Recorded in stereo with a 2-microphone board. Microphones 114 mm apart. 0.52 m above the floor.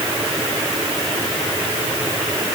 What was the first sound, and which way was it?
Only background noise.